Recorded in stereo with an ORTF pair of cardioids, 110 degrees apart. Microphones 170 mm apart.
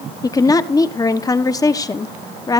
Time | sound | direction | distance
0.2 | a woman speaking | 20° left | 1.1 m